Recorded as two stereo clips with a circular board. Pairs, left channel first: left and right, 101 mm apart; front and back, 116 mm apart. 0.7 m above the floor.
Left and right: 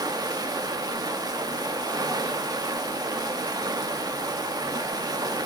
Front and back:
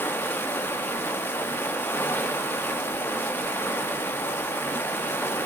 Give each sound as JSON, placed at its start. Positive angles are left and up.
{"t": 0.0, "sound": "running water", "azimuth_deg": -65, "distance_m": 1.0}